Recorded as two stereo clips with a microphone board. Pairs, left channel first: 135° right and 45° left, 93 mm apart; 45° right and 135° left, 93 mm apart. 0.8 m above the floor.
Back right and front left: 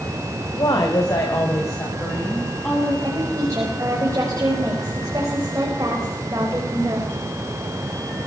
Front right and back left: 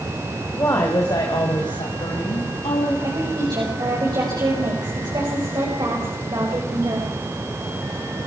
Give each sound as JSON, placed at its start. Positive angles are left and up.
{"t": 0.6, "sound": "a woman speaking", "azimuth_deg": -100, "distance_m": 3.5}
{"t": 3.0, "sound": "a woman speaking", "azimuth_deg": 95, "distance_m": 5.0}